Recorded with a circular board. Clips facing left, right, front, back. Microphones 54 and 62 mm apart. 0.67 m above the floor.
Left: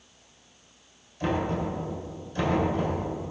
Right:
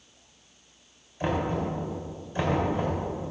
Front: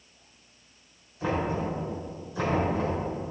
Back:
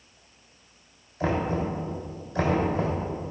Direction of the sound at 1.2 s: 160° right.